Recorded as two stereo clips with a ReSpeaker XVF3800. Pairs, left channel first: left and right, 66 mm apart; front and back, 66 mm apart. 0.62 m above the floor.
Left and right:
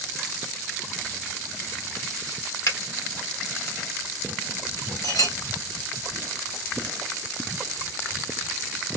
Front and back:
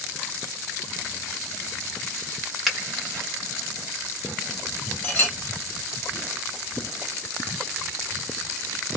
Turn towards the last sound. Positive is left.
turn(degrees=65)